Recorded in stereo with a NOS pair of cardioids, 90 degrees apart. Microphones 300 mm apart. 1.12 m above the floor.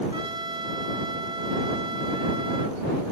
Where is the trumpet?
15° right.